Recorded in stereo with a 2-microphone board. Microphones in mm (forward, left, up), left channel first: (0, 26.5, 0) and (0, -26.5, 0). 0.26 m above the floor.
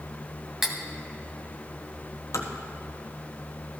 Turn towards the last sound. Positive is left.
turn(degrees=85)